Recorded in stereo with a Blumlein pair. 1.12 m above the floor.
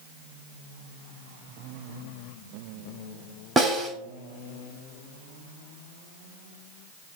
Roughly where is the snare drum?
Ahead.